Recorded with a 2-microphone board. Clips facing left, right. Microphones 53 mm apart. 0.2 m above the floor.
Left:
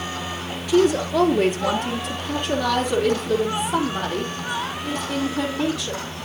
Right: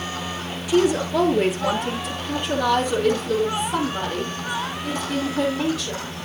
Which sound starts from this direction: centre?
A woman speaking, at 0.7 s.